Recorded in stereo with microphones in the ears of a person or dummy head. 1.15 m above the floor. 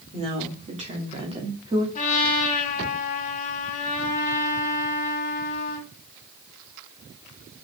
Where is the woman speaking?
35° right (ahead or behind), 3.5 m; by 1.9 s 25° right (ahead or behind), 2.5 m.